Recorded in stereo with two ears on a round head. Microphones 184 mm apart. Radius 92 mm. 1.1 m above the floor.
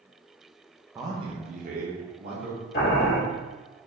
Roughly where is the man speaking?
Centre.